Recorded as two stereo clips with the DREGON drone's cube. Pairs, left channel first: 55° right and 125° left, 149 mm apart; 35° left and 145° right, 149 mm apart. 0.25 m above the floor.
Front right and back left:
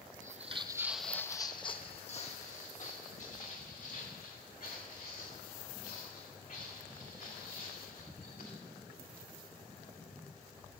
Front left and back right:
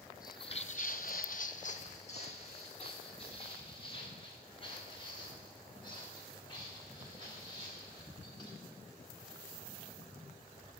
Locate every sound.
0.2 s footsteps: 100° left, 0.6 m; by 8.5 s 30° right, 5 m